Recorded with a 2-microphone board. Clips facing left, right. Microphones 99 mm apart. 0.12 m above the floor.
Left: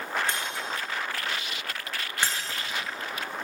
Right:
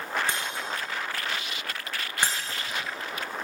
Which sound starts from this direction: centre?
Breaking glass, at 0.3 s.